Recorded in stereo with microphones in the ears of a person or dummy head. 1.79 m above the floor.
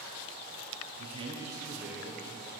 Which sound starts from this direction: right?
A man speaking, at 1.0 s.